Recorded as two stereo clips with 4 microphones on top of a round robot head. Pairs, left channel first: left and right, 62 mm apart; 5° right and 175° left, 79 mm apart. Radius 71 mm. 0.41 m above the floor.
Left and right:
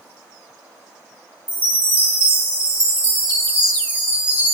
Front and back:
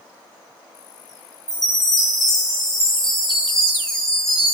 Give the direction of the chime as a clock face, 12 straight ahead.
3 o'clock.